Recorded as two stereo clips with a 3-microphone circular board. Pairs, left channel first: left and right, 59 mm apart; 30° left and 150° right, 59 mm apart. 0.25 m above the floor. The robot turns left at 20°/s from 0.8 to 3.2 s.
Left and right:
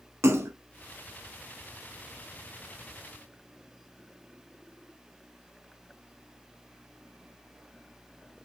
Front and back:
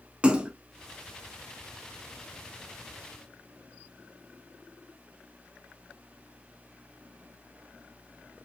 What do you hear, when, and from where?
0.2 s a splash: 90° right, 0.5 m